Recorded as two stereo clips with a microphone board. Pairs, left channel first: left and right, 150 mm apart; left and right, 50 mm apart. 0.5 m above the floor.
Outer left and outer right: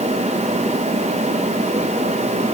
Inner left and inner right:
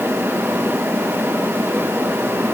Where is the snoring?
I don't hear snoring.